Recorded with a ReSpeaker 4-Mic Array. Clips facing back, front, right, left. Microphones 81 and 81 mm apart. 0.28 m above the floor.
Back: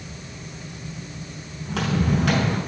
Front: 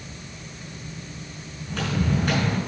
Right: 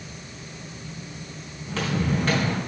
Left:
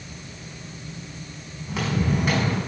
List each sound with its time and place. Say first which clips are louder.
1.6 s footsteps: back 3 dB, left 1 dB; 170° left, 4 m